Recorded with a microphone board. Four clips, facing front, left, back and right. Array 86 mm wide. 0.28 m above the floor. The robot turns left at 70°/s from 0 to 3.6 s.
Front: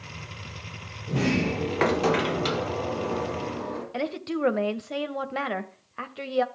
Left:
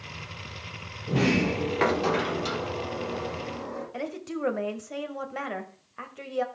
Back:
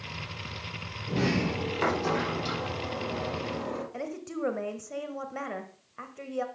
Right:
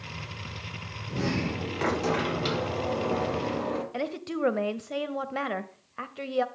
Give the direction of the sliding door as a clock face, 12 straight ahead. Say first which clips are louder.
Left 6 dB, front 3 dB; 9 o'clock.